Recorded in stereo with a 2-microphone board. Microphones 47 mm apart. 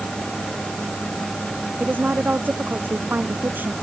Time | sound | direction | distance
1.8 | a woman speaking | 40° right (ahead or behind) | ?